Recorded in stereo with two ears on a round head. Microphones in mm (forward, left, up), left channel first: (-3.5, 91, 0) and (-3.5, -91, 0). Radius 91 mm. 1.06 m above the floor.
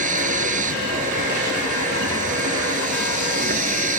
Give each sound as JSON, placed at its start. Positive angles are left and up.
{"t": 0.0, "sound": "a vehicle", "side_deg": -40}